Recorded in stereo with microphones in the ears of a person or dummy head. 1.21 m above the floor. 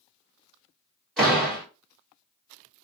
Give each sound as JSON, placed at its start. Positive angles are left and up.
{"t": 1.2, "sound": "a door slam", "side_deg": 0, "distance_m": 2.0}